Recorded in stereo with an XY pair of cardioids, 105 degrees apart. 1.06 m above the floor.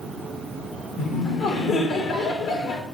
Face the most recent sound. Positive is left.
turn(degrees=50)